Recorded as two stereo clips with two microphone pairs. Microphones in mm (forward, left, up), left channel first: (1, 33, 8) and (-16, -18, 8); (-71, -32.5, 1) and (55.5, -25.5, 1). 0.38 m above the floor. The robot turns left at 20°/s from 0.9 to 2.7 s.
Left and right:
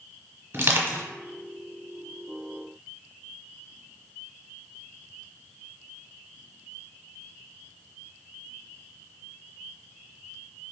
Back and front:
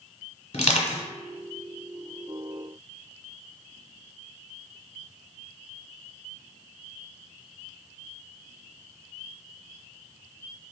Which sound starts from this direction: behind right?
Crushing, at 0.5 s.